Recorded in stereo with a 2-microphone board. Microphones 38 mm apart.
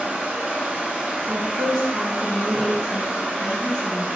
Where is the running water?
35° right (ahead or behind), 0.7 m.